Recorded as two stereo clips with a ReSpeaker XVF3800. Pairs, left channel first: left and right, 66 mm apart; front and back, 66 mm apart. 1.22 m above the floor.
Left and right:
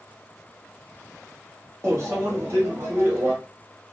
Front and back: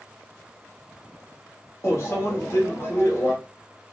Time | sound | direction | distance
1.8 | a microwave | 45° right | 1.1 m